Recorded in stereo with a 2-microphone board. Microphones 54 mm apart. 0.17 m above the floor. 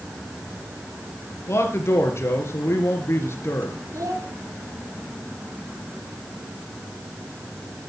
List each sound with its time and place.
1.5 s a man speaking: 50° left (ahead or behind), 3 m
3.9 s a child speaking: 75° right (ahead or behind), 4 m